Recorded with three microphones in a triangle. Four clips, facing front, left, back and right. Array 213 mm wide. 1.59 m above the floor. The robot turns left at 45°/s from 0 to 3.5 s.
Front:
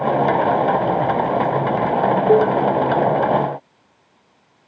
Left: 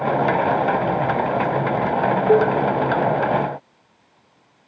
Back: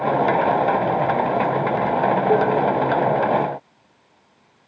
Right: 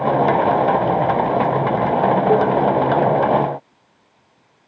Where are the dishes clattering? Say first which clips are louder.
Left 3 dB, front 5 dB; 40° left, 1.9 m; by 2.6 s 30° left, 1.9 m.